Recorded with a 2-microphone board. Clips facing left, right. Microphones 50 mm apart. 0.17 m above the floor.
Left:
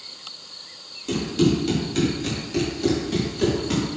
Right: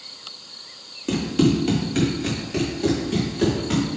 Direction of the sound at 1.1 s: 30° right (ahead or behind).